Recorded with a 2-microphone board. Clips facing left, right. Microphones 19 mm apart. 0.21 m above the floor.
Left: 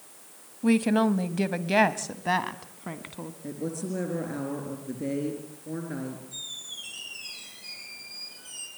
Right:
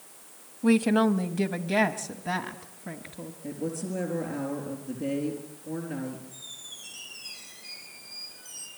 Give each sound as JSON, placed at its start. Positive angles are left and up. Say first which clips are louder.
{"t": 0.6, "sound": "a woman speaking", "louder": "right 1 dB", "side_deg": -5, "distance_m": 1.0}
{"t": 3.4, "sound": "a woman speaking", "louder": "even", "side_deg": 15, "distance_m": 3.5}
{"t": 6.3, "sound": "a squeak", "louder": "left 5 dB", "side_deg": 35, "distance_m": 5.0}